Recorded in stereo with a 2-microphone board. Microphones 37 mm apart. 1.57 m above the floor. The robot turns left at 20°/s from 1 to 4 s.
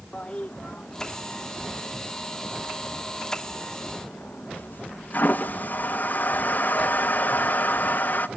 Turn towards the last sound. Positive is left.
turn(degrees=50)  # may be behind; listen again after turning